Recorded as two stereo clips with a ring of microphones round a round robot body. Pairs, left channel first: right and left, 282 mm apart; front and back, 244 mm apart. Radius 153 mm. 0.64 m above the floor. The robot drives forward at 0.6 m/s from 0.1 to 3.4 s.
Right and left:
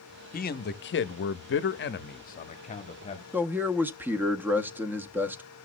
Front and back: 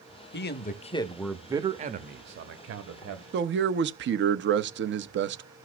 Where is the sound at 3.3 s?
170° left, 0.6 m.